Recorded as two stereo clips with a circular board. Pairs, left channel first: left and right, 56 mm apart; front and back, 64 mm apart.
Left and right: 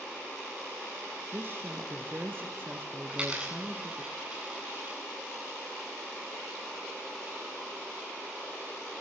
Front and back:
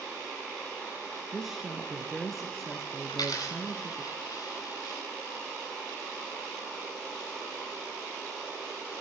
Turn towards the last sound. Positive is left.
turn(degrees=-15)